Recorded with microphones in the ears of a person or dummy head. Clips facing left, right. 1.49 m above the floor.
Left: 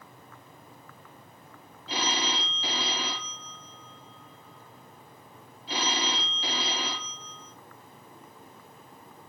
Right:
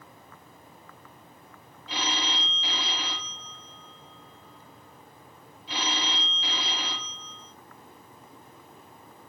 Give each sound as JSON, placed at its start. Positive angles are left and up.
{"t": 1.9, "sound": "a phone ringing", "side_deg": 25, "distance_m": 0.6}